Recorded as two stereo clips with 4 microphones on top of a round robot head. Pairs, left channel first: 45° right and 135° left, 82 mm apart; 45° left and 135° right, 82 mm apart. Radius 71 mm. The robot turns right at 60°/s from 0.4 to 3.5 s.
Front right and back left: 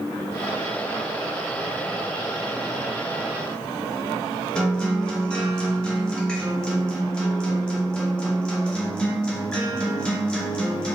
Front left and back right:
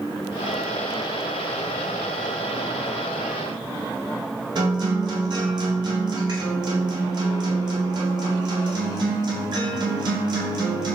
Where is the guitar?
125° right, 1.3 m.